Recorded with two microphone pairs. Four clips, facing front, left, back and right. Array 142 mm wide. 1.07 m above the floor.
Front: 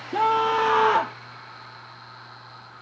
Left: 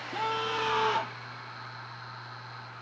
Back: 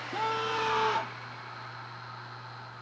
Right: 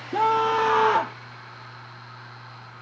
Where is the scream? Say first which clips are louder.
Right 11 dB, front 10 dB; 45° right; by 1.2 s 35° right.